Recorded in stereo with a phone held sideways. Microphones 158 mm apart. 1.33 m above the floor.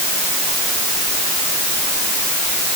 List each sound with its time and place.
Only background noise.